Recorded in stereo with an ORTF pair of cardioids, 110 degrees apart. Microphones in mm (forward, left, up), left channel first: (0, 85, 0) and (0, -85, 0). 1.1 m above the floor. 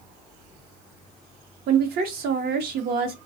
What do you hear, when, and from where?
1.7 s a woman speaking: 65° right, 0.7 m